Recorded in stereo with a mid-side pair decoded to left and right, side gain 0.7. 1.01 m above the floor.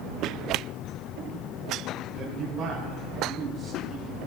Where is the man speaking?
35° right, 5.5 m; by 4.2 s 15° right, 6 m.